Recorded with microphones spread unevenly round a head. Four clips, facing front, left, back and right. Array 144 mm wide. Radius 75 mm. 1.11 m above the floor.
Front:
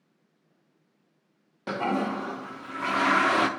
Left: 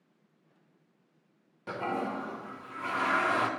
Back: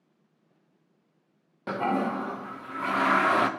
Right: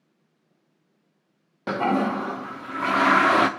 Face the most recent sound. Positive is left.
turn(degrees=-75)